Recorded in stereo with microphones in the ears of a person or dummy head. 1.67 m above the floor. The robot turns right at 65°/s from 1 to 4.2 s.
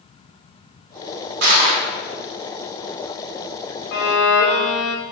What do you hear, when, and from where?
1.4 s crushing: 60° right (ahead or behind), 0.6 m; by 1.8 s 85° right, 0.6 m
3.9 s a violin: 55° left (ahead or behind), 0.7 m